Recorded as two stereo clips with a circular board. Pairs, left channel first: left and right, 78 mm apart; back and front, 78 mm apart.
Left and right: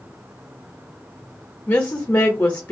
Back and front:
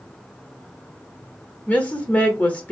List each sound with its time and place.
1.7 s a woman speaking: 125° left, 0.8 m